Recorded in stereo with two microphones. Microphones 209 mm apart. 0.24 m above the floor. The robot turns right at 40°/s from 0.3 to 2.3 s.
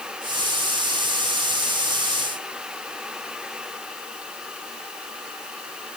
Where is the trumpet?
I don't hear a trumpet.